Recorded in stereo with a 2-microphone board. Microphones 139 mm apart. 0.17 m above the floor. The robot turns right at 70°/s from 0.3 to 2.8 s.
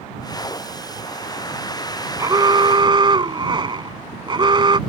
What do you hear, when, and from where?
2.2 s an alarm: 130° right; by 4.8 s 85° right